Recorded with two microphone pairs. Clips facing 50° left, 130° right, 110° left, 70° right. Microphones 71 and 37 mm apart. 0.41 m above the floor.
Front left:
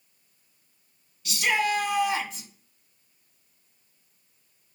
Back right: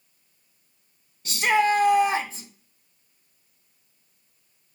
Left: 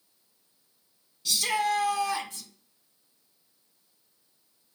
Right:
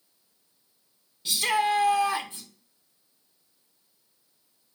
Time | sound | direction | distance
1.2 | a shout | 105° right | 0.9 m